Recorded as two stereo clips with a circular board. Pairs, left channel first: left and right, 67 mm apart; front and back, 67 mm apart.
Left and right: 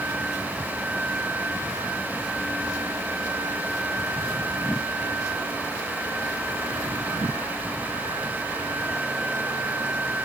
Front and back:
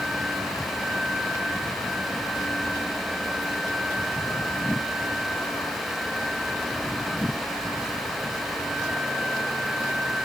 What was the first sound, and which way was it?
Only background noise.